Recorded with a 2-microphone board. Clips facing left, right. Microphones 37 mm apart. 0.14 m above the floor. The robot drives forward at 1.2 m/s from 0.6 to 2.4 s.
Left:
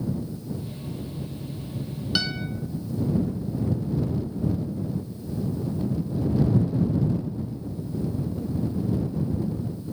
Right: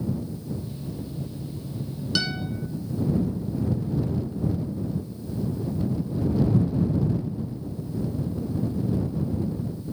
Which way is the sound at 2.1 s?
15° left (ahead or behind).